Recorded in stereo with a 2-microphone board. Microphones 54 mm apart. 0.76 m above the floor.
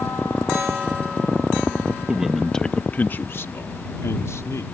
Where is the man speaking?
15° right (ahead or behind); by 4.7 s 70° left (ahead or behind).